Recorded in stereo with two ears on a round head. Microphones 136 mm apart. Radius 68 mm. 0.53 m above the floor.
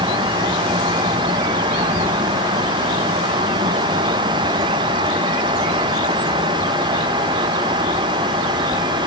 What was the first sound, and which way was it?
Only background noise.